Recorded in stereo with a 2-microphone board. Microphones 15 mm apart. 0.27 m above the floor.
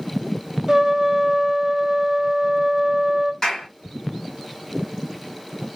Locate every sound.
0.7 s a trumpet: 25° right (ahead or behind), 0.9 m
3.4 s a clap: 45° left (ahead or behind), 1.8 m